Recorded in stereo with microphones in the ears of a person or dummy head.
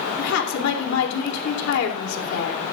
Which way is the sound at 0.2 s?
80° left.